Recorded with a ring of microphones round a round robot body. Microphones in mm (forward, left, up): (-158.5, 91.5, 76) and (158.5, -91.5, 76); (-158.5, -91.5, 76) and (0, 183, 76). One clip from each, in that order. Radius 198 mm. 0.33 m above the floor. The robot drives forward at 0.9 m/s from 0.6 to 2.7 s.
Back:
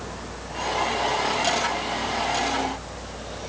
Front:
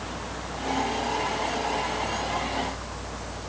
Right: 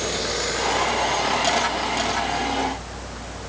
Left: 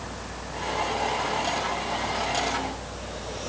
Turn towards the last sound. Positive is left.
No sound to turn to.